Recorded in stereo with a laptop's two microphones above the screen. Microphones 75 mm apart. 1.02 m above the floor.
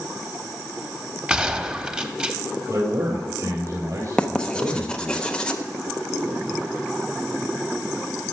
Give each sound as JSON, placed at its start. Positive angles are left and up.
{"t": 1.3, "sound": "a gunshot", "side_deg": -15, "distance_m": 1.0}
{"t": 2.7, "sound": "a man speaking", "side_deg": -55, "distance_m": 4.0}
{"t": 4.2, "sound": "writing", "side_deg": 10, "distance_m": 0.6}